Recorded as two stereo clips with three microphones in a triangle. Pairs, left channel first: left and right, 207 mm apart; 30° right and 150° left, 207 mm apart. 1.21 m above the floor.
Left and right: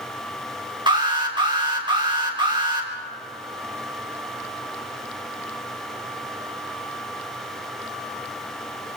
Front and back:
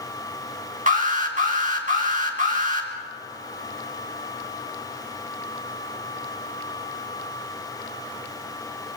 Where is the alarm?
160° right, 3.5 m.